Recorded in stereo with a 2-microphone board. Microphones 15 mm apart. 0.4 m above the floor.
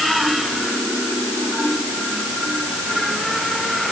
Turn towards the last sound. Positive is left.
No sound to turn to.